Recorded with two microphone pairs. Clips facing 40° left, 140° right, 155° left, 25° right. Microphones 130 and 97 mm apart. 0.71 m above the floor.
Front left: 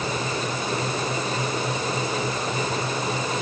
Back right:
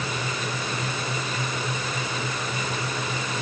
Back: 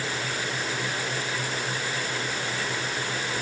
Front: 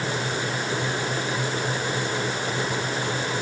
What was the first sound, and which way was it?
Only background noise.